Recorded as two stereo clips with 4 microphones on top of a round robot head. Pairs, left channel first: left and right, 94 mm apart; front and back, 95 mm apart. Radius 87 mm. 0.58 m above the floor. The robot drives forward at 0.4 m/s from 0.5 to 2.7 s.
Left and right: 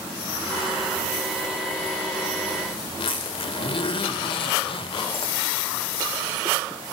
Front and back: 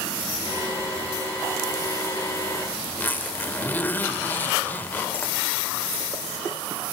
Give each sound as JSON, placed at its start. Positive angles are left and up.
{"t": 2.9, "sound": "a zipper", "azimuth_deg": 70, "distance_m": 2.0}